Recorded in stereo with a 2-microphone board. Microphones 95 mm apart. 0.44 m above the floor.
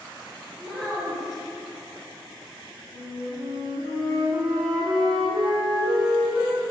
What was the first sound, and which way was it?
A child speaking, centre (ahead or behind).